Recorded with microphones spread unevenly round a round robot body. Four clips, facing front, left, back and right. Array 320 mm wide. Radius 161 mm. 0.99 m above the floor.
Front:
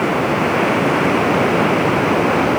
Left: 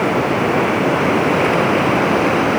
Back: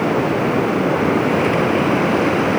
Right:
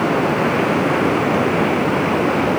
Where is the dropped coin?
No dropped coin in this recording.